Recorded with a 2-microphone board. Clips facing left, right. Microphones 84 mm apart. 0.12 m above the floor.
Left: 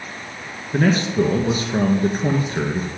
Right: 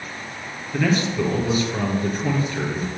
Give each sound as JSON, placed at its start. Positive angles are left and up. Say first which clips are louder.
{"t": 0.7, "sound": "a man speaking", "louder": "left 3 dB", "side_deg": 40, "distance_m": 1.6}